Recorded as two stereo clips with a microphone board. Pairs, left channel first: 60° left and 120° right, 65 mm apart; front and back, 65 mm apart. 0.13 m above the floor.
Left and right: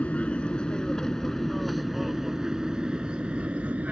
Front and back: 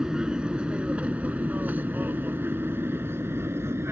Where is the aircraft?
110° left; by 3.9 s 175° right.